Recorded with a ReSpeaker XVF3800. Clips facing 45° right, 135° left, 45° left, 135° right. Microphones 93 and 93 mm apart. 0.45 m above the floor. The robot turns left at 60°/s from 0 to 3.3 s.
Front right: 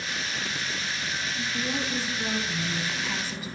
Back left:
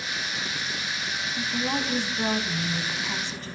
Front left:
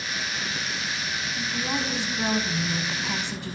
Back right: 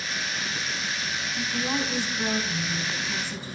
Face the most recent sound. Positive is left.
turn(degrees=35)